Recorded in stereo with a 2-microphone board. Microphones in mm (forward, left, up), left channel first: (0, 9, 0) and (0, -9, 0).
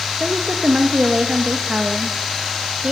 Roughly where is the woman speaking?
Right.